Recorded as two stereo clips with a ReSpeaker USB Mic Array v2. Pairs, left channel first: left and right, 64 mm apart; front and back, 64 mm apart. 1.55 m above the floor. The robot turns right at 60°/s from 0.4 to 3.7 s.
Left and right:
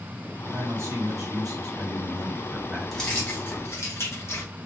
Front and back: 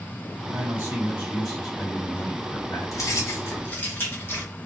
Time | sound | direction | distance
0.5 | a man speaking | 145° right | 2 m
2.9 | keys jangling | 5° left | 1.4 m